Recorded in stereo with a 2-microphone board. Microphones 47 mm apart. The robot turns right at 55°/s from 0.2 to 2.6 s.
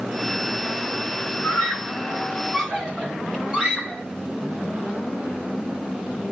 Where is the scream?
45° left (ahead or behind), 5 m; by 4.0 s 20° right (ahead or behind), 5 m.